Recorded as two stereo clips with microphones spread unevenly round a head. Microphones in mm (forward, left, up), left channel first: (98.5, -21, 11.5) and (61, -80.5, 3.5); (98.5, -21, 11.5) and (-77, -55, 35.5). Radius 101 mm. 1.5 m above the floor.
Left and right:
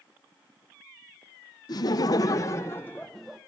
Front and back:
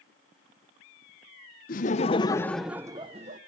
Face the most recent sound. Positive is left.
turn(degrees=150)